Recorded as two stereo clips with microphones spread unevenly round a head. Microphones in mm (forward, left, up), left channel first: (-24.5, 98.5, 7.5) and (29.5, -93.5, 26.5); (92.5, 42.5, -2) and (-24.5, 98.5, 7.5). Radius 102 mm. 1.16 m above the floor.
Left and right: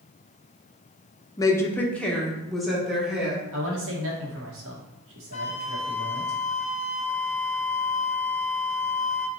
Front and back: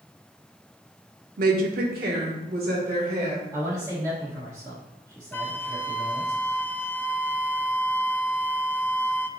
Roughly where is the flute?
Ahead left.